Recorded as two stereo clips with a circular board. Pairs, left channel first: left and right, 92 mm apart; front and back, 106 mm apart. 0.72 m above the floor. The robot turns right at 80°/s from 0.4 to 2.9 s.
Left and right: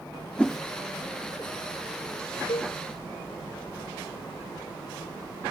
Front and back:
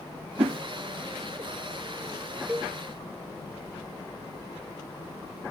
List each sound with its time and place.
0.4 s a whoosh: 165° left; by 0.6 s 175° right
2.5 s a cowbell: 100° left; by 2.8 s 125° left